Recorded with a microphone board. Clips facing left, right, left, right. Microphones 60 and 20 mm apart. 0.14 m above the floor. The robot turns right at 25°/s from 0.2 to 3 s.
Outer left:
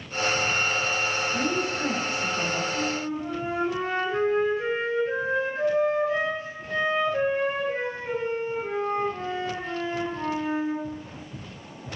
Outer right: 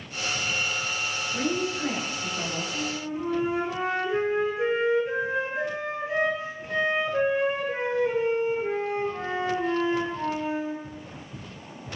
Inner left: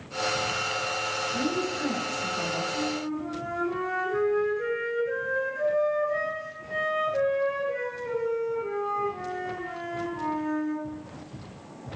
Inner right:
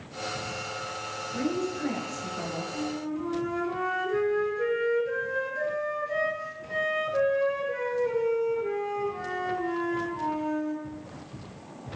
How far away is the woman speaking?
About 1.9 m.